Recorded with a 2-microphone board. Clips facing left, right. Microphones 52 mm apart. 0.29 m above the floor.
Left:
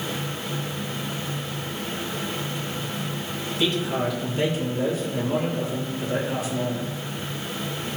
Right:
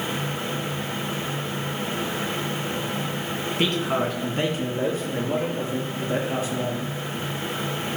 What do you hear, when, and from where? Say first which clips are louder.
3.6 s a man speaking: even; 55° right (ahead or behind), 2 m; by 6.8 s 35° right (ahead or behind), 5 m